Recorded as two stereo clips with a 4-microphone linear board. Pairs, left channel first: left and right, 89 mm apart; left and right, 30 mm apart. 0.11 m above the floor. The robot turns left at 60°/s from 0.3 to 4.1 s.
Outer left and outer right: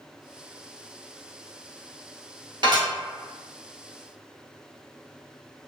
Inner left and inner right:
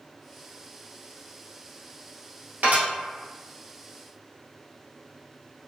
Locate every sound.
2.6 s dishes clattering: 55° right (ahead or behind), 1.7 m; by 2.9 s 50° right (ahead or behind), 1.7 m